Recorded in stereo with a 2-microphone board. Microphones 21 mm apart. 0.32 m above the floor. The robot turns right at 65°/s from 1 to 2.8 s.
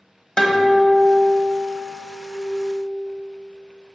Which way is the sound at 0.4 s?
45° left.